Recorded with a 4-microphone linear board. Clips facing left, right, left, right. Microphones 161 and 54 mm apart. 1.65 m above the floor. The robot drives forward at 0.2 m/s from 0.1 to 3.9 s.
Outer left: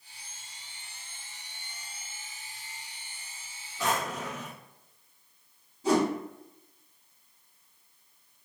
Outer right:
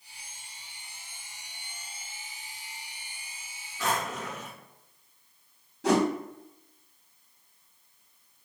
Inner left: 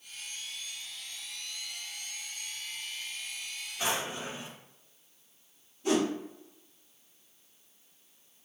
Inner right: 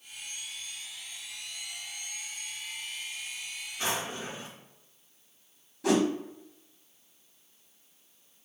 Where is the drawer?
15° left (ahead or behind), 1.6 m.